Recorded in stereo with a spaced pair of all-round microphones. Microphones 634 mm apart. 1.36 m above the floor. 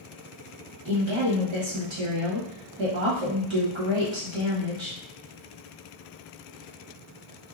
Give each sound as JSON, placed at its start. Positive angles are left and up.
{"t": 0.8, "sound": "a woman speaking", "side_deg": -45, "distance_m": 1.2}